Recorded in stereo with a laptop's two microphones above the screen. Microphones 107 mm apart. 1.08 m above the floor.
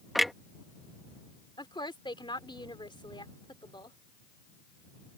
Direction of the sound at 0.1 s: Centre (ahead or behind).